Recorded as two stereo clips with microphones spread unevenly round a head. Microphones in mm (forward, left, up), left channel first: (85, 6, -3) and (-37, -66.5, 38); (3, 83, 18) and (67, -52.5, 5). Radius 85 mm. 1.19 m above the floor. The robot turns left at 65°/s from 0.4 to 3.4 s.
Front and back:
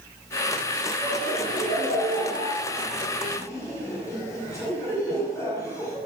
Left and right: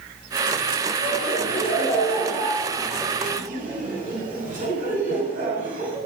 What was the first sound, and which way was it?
Laughter, 115° left.